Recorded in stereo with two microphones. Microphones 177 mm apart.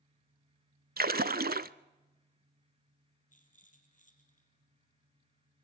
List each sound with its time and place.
1.0 s a splash: 60° right (ahead or behind), 0.5 m
3.3 s a rattle: 45° left (ahead or behind), 3.5 m